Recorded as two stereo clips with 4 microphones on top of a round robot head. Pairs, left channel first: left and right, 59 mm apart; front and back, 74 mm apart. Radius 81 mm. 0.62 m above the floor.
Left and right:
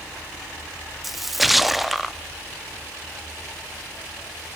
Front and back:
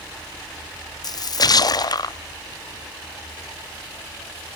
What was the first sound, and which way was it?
A splash, straight ahead.